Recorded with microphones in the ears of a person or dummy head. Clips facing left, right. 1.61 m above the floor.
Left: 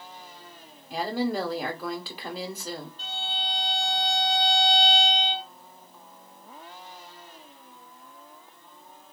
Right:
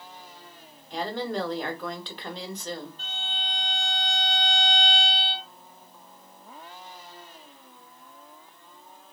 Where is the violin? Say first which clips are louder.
Left 4 dB; 30° left (ahead or behind), 1.6 m.